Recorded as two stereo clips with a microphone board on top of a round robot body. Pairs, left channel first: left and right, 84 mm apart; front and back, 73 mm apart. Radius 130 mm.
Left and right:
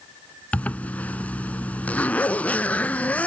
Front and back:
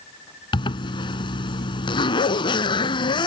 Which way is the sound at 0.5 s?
15° left.